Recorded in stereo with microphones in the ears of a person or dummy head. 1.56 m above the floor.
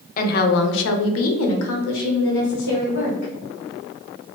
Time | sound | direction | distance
0.2 | a woman speaking | 50° left (ahead or behind) | 0.7 m